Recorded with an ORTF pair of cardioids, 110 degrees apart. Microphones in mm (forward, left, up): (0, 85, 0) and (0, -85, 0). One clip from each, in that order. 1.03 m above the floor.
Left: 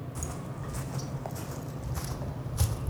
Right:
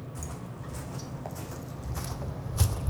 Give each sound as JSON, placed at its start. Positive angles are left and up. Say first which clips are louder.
{"t": 0.1, "sound": "footsteps", "louder": "left 4 dB", "azimuth_deg": 20, "distance_m": 3.0}